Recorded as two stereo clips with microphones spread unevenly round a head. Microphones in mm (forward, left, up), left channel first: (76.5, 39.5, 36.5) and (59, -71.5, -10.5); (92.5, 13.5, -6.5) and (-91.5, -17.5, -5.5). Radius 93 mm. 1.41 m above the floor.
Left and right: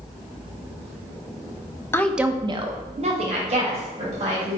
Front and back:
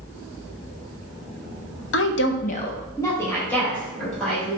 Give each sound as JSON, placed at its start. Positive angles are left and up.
{"t": 1.9, "sound": "a woman speaking", "azimuth_deg": 25, "distance_m": 0.6}